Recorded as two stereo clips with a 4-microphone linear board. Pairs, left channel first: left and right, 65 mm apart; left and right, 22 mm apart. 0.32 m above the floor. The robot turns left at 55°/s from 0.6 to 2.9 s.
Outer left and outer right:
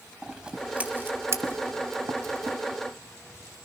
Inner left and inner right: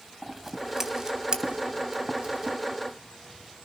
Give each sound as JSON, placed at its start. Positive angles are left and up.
{"t": 0.2, "sound": "scissors", "side_deg": -10, "distance_m": 2.0}